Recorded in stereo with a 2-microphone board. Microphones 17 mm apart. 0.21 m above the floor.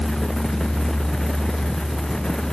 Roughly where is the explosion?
No explosion in this recording.